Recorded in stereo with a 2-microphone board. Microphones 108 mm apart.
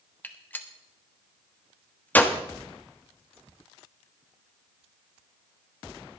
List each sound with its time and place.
0.2 s a gunshot: 15° left (ahead or behind), 1.1 m